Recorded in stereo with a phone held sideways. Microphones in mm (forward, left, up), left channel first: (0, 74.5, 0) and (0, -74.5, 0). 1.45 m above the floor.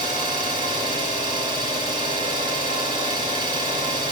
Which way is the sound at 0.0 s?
30° right (ahead or behind).